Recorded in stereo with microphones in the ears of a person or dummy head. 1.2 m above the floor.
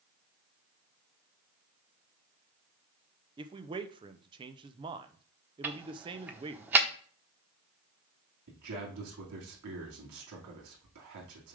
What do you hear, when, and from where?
3.4 s a man speaking: 20° right (ahead or behind), 0.7 m
5.6 s ticking: 10° right (ahead or behind), 0.9 m
8.5 s a man speaking: 80° right, 3 m